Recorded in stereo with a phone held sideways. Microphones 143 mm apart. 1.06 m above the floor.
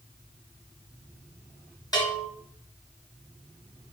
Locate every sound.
1.9 s a bell: 25° left (ahead or behind), 1.8 m